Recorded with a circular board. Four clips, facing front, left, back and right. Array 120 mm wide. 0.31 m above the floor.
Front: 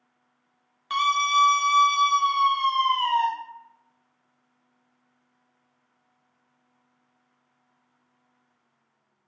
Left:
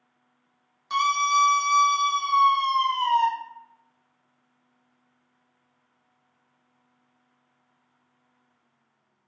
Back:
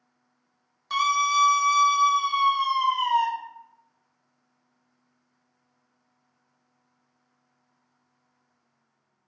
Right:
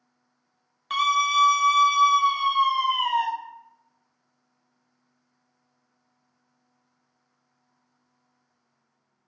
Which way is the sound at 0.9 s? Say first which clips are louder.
Even, even; 50° right.